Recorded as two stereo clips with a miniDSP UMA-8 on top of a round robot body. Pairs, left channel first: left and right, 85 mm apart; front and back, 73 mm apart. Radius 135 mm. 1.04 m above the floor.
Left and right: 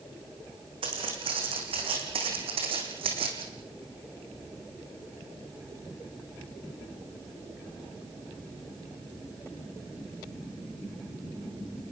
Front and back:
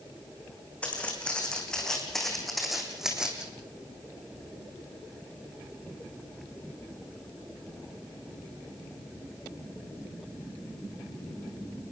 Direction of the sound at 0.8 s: 70° right.